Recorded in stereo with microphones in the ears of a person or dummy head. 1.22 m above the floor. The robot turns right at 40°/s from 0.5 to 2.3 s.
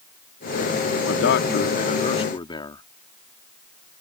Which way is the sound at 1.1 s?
105° left.